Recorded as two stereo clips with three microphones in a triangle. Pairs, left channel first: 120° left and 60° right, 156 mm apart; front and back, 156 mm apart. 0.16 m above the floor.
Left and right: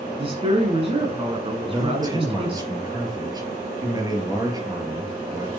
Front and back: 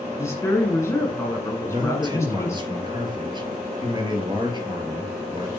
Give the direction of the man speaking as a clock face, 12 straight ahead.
4 o'clock.